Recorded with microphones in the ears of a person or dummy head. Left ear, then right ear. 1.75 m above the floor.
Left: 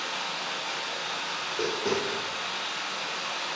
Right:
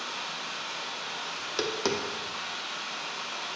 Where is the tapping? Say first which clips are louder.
Right 1 dB; 60° right (ahead or behind), 0.5 m.